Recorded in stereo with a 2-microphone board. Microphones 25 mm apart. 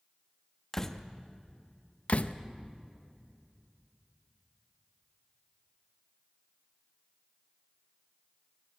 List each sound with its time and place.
0.7 s a door slam: 15° left (ahead or behind), 1.0 m
2.1 s a door slam: 55° left (ahead or behind), 0.7 m